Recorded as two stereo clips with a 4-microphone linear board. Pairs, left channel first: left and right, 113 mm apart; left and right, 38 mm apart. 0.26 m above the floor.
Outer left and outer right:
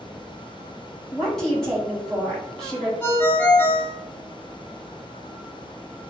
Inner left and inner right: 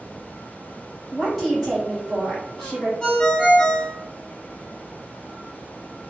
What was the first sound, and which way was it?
A woman speaking, 5° left (ahead or behind).